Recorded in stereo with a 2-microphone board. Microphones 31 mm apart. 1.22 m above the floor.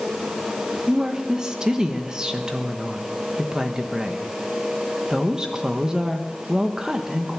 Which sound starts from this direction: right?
A woman speaking, at 0.9 s.